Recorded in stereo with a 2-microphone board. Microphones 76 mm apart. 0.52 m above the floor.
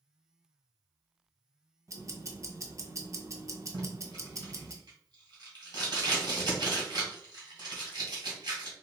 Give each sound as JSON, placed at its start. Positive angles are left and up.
{"t": 1.9, "sound": "ticking", "side_deg": -40, "distance_m": 0.5}
{"t": 3.7, "sound": "tape being pulled", "side_deg": -65, "distance_m": 2.0}